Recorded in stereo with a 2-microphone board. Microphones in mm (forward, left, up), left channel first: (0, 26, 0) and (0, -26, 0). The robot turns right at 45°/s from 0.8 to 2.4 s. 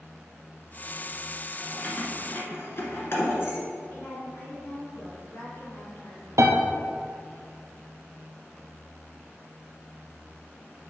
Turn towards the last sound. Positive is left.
turn(degrees=-80)